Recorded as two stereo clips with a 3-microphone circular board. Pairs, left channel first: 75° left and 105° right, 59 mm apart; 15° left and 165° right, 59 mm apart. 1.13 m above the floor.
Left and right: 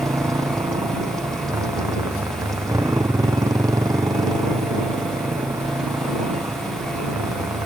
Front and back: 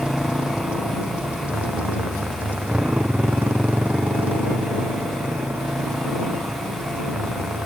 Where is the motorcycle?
90° right; by 7.7 s 110° right.